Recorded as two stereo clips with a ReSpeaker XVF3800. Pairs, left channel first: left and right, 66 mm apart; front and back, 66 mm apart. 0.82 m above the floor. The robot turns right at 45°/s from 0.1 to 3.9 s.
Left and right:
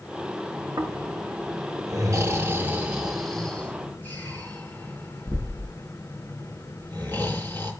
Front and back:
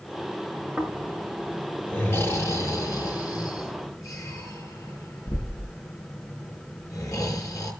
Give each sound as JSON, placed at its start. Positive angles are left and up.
{"t": 0.8, "sound": "snoring", "azimuth_deg": -110, "distance_m": 4.0}